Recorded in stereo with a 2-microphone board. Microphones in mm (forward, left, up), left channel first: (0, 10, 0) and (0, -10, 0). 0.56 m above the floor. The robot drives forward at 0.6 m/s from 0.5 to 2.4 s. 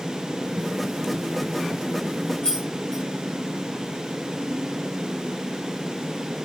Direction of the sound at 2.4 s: 50° left (ahead or behind).